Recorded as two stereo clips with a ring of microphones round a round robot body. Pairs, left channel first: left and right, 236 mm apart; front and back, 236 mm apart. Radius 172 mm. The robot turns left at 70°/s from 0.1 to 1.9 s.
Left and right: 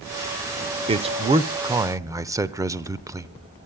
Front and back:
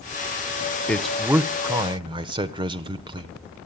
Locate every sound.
0.9 s a man speaking: 75° right, 0.9 m; by 3.3 s 145° right, 0.9 m